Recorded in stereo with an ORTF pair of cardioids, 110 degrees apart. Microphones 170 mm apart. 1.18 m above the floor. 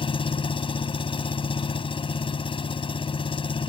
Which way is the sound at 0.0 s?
30° left.